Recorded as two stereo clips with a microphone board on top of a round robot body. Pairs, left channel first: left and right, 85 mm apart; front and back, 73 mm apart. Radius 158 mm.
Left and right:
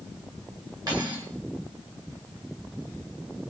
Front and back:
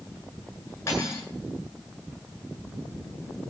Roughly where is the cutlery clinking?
Ahead right.